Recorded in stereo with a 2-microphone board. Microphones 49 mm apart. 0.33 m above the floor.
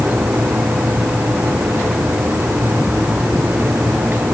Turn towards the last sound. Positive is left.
No sound to turn to.